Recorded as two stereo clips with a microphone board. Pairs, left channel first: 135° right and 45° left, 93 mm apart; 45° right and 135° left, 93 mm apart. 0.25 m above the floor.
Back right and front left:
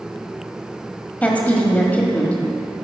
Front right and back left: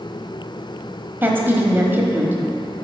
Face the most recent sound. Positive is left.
turn(degrees=170)